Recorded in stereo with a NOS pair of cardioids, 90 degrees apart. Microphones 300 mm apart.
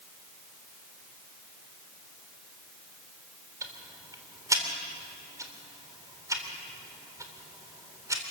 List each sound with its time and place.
3.6 s ticking: 10° right, 3.5 m